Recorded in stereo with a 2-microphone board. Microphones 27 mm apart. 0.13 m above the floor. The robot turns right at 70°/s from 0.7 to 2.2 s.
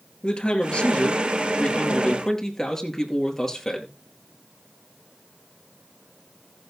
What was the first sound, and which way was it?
A man speaking, 55° left.